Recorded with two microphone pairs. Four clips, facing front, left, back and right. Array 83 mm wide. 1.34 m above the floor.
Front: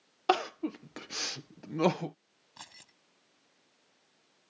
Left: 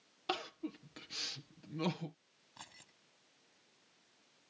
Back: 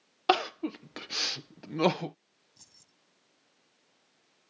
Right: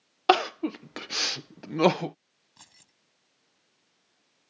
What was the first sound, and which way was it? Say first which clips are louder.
Crying: right 18 dB, back 2 dB; 100° right.